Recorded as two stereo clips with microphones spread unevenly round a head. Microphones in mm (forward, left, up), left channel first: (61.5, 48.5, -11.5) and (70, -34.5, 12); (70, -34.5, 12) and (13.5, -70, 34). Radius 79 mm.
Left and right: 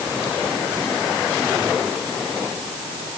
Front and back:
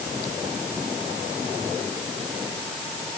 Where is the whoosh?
I don't hear a whoosh.